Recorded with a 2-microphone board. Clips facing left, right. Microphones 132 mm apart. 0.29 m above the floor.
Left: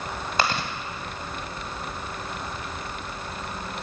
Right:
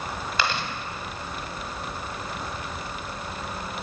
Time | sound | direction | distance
0.4 | chewing | 45° left (ahead or behind) | 1.7 m